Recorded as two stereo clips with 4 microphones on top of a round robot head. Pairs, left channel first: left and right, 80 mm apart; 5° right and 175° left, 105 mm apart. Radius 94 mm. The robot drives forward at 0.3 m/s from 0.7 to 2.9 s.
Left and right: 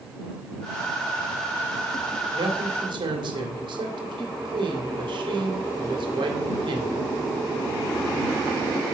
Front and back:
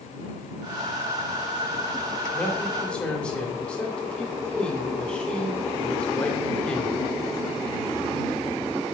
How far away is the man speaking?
About 2.5 m.